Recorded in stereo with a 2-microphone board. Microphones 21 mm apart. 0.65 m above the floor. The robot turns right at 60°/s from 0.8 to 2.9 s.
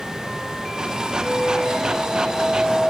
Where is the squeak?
65° right, 6.5 m; by 2.9 s 35° left, 6.5 m.